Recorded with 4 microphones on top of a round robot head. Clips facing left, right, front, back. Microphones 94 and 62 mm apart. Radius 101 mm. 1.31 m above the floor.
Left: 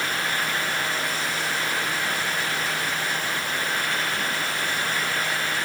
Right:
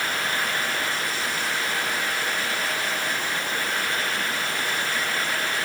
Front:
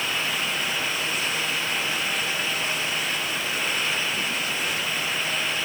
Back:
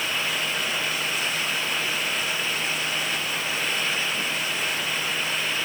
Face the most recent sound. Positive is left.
No sound to turn to.